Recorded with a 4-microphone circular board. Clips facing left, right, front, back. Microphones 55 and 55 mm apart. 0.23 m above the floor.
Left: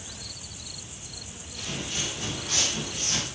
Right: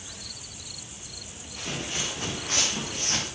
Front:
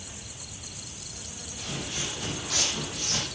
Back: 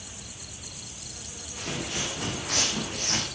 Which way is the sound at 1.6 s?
150° right.